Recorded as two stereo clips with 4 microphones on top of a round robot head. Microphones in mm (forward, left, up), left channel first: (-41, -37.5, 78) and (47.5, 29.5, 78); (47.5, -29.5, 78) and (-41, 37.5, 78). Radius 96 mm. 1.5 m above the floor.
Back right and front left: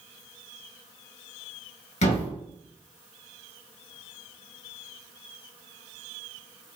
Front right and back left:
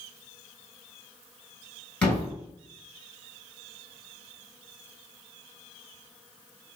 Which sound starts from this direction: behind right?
A thud, at 2.0 s.